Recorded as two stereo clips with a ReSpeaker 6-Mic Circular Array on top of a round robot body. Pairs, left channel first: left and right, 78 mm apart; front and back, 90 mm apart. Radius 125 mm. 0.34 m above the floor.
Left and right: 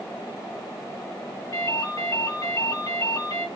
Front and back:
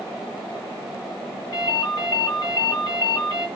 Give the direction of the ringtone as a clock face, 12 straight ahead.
10 o'clock.